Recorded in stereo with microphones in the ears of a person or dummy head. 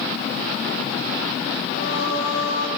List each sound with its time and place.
1.7 s singing: 75° left (ahead or behind), 7 m